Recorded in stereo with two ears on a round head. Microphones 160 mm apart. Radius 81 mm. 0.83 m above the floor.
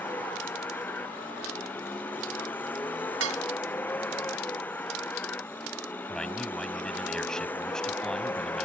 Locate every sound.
0.0 s a vehicle: 10° left (ahead or behind)
3.2 s dishes clattering: 85° right
6.1 s a man speaking: 5° left (ahead or behind)